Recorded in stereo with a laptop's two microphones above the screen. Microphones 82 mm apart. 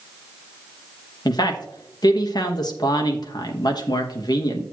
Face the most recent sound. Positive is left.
turn(degrees=55)  # may be behind; listen again after turning